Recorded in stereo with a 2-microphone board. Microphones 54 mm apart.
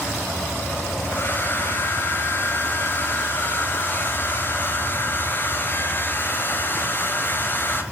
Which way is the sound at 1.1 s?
35° left (ahead or behind).